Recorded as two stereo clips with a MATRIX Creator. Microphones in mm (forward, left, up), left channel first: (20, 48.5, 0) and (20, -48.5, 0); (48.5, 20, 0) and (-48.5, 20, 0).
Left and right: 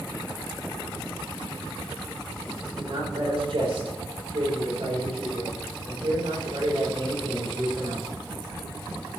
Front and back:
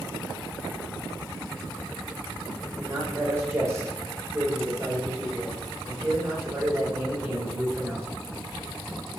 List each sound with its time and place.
2.8 s a man speaking: 120° right, 5.5 m